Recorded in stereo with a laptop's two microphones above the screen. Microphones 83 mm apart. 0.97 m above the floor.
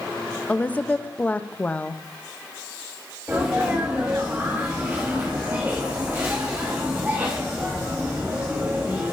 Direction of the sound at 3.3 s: 25° right (ahead or behind).